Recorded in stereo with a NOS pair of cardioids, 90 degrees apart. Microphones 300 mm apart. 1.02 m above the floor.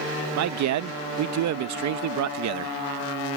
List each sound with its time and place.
0.4 s a man speaking: 70° right